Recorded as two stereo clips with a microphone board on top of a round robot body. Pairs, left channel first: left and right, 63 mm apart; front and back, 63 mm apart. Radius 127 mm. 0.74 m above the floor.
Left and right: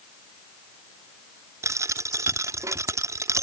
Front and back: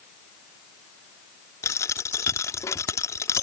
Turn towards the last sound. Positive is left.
turn(degrees=-45)